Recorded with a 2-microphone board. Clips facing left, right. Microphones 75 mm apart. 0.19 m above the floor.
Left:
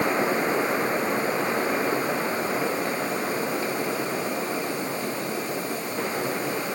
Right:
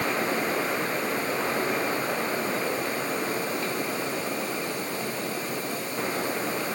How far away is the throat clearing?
I don't hear throat clearing.